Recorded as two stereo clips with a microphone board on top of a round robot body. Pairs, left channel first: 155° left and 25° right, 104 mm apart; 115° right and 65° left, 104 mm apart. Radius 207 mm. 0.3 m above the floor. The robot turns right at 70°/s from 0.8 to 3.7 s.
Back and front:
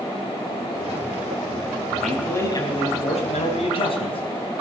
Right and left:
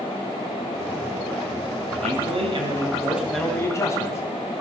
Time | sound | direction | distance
2.0 | a man speaking | 65° left | 4 m